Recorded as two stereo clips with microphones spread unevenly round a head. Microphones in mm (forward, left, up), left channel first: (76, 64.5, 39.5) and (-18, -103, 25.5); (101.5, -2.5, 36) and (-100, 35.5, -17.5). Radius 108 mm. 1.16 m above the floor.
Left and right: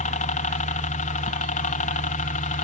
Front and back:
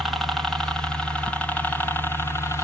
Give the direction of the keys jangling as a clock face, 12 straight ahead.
No keys jangling in this recording.